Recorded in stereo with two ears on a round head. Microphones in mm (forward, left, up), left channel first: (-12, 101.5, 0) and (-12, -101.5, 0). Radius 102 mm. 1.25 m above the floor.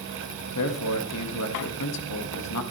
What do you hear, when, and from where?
0.6 s a man speaking: 90° left, 1.6 m